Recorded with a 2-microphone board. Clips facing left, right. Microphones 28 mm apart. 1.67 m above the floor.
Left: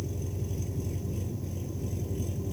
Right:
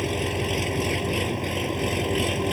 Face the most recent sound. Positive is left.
turn(degrees=-70)  # may be behind; listen again after turning